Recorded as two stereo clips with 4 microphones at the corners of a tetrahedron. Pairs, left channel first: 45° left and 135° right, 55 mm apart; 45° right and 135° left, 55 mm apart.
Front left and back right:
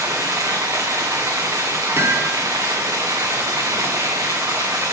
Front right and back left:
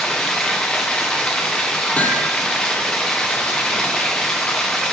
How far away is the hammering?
About 0.6 m.